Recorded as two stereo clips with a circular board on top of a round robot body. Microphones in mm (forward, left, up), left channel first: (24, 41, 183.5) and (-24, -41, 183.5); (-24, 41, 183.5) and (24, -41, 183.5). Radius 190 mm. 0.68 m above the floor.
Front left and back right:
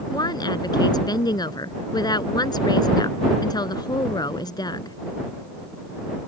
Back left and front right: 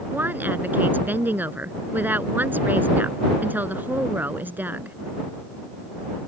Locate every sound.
0.1 s a woman speaking: 15° left